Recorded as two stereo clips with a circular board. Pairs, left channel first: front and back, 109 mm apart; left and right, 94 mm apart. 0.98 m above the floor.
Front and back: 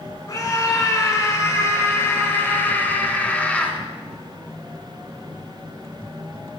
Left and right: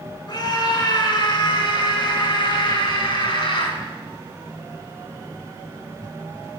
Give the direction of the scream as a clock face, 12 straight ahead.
10 o'clock.